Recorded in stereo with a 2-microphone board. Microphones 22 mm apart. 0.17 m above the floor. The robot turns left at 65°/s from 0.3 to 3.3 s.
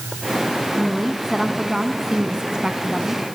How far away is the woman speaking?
About 1.2 m.